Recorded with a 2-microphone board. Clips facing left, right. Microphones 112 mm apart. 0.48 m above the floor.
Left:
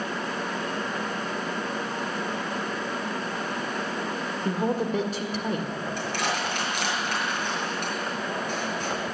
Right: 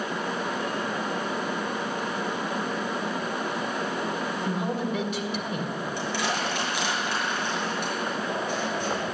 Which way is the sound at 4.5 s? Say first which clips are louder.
Left 5 dB; 40° left (ahead or behind).